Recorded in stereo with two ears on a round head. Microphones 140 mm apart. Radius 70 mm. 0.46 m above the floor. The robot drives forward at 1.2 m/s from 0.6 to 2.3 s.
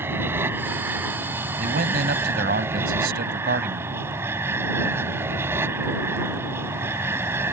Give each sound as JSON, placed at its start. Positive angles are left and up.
{"t": 0.0, "sound": "an aircraft", "side_deg": -15}
{"t": 1.6, "sound": "a man speaking", "side_deg": -55}